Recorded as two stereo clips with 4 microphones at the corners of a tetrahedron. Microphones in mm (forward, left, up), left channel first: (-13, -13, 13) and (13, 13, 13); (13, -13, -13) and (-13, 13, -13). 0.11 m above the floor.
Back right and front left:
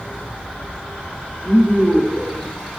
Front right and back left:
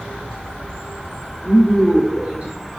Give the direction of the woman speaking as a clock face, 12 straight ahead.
7 o'clock.